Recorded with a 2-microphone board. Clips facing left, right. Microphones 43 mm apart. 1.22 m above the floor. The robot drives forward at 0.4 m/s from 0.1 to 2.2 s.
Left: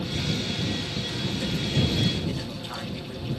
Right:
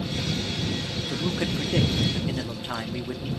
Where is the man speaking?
55° right (ahead or behind), 0.6 m; by 3.3 s 30° right (ahead or behind), 0.9 m.